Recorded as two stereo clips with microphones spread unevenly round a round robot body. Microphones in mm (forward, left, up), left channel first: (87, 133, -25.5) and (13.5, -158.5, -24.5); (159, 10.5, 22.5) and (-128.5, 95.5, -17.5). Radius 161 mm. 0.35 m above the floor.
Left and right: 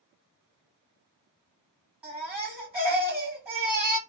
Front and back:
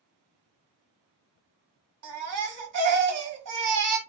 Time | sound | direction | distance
2.0 | a baby crying | 170° left | 1.3 m